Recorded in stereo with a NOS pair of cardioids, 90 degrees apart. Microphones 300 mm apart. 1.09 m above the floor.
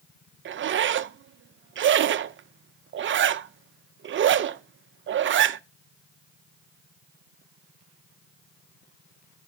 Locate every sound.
0.5 s a zipper: 40° right, 0.5 m